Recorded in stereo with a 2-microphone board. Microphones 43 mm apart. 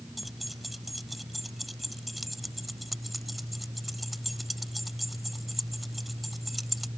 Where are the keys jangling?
Centre (ahead or behind).